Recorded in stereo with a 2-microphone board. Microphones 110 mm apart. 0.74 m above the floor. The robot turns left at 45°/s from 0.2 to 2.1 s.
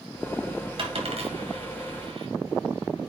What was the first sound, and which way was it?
A dropped coin, 55° right (ahead or behind).